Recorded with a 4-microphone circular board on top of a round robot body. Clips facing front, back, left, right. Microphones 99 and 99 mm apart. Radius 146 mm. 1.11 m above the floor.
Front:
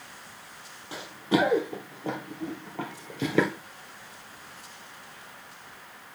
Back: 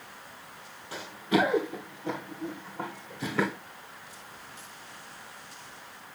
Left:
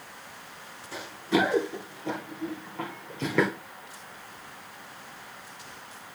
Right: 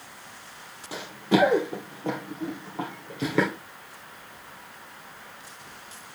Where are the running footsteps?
70° right, 1.8 m; by 3.5 s straight ahead, 1.6 m.